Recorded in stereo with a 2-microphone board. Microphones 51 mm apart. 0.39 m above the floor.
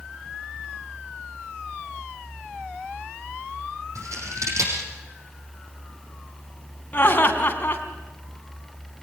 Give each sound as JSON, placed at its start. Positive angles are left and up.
{"t": 4.0, "sound": "scissors", "side_deg": -85, "distance_m": 7.0}
{"t": 6.9, "sound": "laughter", "side_deg": 35, "distance_m": 3.5}